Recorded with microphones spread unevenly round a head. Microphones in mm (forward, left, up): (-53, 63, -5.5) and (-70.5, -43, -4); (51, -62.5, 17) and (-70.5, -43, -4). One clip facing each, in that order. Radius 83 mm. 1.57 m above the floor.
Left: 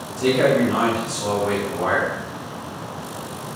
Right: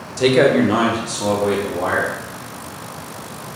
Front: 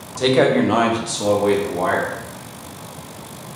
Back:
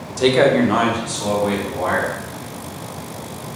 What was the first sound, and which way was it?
A man speaking, 105° right.